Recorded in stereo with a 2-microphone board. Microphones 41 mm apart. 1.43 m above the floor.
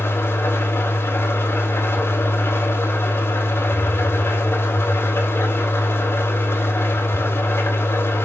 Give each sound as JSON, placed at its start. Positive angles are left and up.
{"t": 0.0, "sound": "an engine running", "side_deg": 70, "distance_m": 3.5}